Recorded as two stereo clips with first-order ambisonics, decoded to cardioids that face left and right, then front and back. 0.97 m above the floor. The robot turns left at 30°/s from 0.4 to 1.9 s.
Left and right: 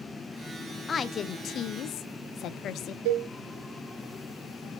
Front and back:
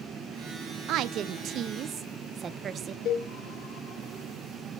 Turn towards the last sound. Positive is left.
turn(degrees=-60)